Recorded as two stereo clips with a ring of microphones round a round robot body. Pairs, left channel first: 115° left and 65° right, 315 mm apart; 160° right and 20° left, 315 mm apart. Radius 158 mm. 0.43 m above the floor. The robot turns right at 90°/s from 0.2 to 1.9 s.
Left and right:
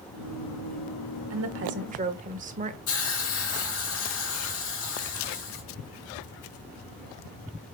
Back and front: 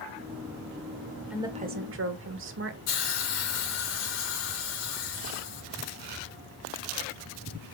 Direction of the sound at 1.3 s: 65° right.